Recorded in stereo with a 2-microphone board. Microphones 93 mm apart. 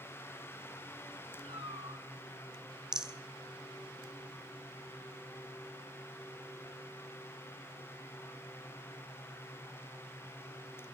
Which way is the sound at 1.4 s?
70° right (ahead or behind).